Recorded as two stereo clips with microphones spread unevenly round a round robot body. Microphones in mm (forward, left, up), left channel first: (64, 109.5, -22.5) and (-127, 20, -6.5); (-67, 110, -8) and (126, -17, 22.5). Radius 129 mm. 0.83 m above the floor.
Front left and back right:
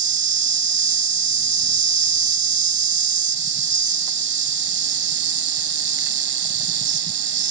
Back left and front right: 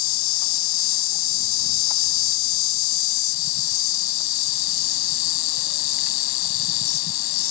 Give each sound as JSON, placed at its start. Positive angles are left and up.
{"t": 0.0, "sound": "an insect", "azimuth_deg": 170}